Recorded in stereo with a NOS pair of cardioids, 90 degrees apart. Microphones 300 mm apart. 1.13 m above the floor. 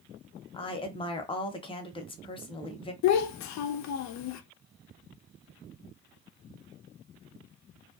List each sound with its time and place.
0.5 s a woman speaking: 20° left, 0.8 m
3.0 s a child speaking: 65° left, 0.5 m